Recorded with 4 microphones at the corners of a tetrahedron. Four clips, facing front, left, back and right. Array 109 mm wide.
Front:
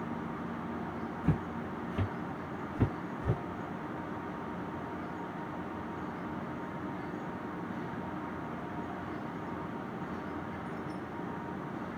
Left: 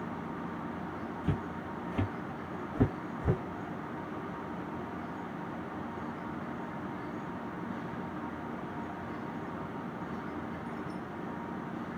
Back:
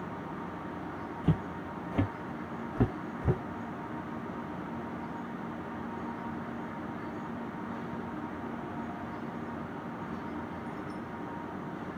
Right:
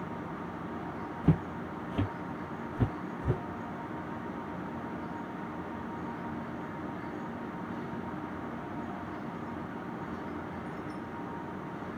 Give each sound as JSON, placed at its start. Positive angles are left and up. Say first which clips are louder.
{"t": 1.2, "sound": "footsteps", "louder": "right 8 dB, back 2 dB", "azimuth_deg": -105, "distance_m": 0.8}